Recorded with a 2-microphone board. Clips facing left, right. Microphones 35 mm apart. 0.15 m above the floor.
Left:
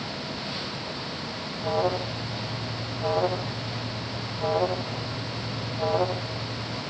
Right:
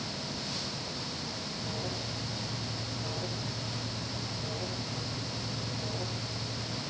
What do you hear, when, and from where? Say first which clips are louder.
1.6 s an alarm: left 15 dB; 75° left (ahead or behind)